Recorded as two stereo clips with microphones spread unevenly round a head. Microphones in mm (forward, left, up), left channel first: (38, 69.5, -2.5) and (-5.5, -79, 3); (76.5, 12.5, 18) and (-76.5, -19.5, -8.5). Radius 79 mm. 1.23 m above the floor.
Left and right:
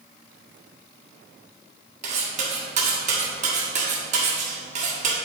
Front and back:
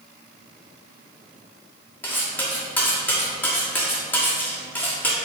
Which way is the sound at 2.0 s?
65° right.